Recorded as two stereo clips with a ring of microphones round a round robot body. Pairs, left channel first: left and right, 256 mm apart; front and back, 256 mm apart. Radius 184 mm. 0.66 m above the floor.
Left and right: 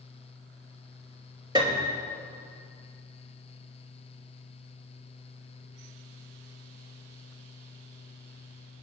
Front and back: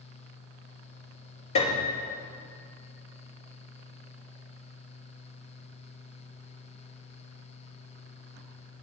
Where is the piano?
20° right, 3.5 m.